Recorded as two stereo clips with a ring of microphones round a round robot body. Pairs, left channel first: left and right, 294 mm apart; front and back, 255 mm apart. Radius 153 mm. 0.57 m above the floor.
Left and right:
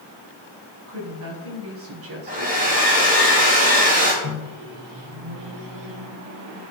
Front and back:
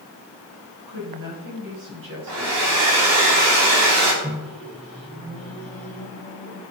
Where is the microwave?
110° right, 2 m.